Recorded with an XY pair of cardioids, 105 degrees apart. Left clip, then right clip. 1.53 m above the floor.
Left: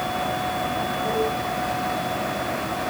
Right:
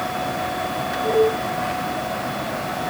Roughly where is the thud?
I don't hear a thud.